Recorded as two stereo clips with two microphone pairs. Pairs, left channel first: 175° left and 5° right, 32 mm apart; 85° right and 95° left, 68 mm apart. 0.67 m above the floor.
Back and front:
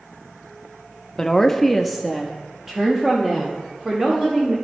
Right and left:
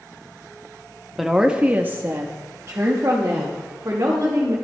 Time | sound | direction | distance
1.2 | a woman speaking | 170° right | 0.5 m